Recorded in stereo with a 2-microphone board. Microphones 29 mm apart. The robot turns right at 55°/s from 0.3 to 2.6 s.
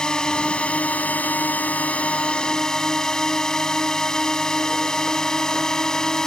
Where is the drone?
30° left; by 6.3 s 160° left.